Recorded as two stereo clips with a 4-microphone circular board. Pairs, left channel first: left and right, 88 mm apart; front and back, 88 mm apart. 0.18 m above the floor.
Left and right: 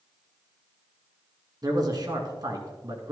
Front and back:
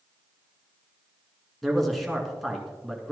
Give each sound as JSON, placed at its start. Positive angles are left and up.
{"t": 1.6, "sound": "a man speaking", "azimuth_deg": -90, "distance_m": 2.0}